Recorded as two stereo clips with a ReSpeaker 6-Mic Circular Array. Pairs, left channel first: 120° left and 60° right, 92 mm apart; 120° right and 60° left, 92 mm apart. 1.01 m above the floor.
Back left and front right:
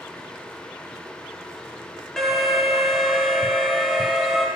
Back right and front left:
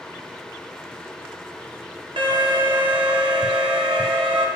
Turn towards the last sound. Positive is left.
turn(degrees=35)